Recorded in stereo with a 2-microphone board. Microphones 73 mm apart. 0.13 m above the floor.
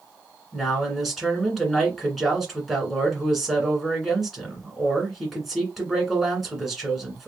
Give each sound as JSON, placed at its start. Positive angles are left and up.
{"t": 0.5, "sound": "a man speaking", "side_deg": 0, "distance_m": 1.3}